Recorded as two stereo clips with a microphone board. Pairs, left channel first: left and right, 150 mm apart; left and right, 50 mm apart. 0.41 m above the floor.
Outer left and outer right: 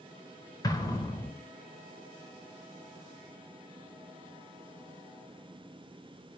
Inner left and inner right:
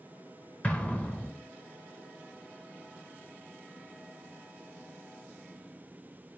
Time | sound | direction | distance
0.6 | an explosion | 25° left (ahead or behind) | 0.9 m